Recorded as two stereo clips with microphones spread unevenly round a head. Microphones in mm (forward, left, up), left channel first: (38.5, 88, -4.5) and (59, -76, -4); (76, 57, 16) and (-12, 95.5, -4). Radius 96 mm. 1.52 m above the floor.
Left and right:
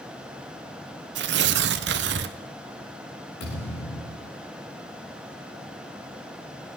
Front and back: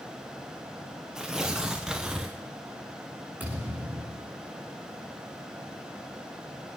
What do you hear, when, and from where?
1.1 s tearing paper: 115° right, 0.6 m
3.4 s a thud: 80° left, 7 m